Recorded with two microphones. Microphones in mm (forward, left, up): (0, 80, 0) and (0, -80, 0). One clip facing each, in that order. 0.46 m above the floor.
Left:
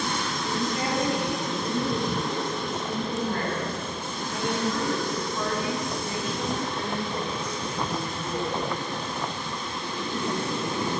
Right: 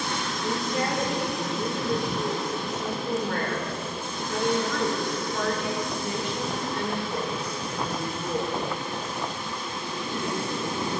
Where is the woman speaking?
65° right (ahead or behind), 7 m.